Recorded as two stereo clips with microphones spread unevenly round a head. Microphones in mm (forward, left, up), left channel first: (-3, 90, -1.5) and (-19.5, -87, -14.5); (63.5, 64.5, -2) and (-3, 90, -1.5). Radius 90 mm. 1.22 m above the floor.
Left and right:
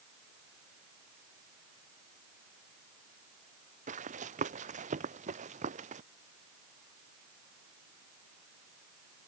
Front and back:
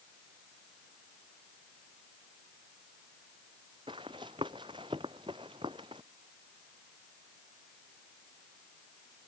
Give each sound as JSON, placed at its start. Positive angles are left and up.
{"t": 3.9, "sound": "running footsteps", "azimuth_deg": -145}